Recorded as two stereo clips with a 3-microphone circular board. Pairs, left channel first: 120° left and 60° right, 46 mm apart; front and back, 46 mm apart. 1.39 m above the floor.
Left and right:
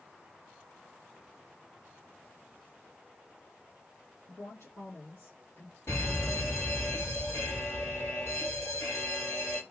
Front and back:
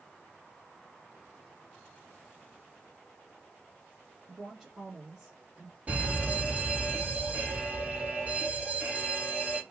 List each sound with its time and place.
4.3 s a woman speaking: 100° left, 1.4 m; by 5.8 s 110° left, 2.5 m
5.9 s a fire alarm: 125° left, 2.5 m